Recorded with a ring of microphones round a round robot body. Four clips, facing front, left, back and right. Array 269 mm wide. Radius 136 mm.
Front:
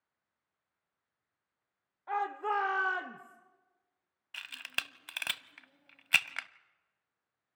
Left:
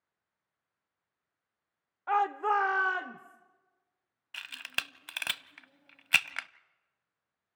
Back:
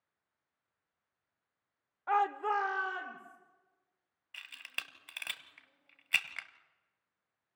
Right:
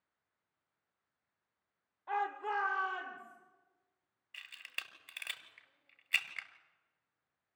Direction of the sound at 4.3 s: 60° left.